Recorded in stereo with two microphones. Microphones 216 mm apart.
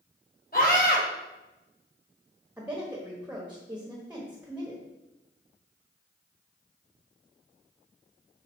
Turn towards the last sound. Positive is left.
turn(degrees=-5)  # may be behind; listen again after turning